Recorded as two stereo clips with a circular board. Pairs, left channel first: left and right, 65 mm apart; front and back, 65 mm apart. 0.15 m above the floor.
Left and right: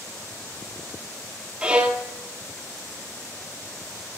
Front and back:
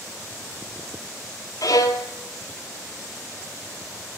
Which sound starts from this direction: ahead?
A violin, at 1.6 s.